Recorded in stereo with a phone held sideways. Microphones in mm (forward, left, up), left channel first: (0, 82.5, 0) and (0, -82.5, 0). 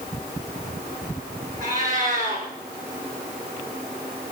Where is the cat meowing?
50° right (ahead or behind), 4.5 m.